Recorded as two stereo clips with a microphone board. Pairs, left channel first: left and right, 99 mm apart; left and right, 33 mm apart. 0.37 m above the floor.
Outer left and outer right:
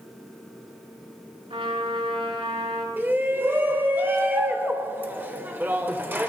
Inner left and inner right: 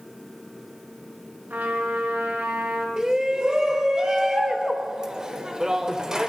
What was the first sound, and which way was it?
A trumpet, 70° right (ahead or behind).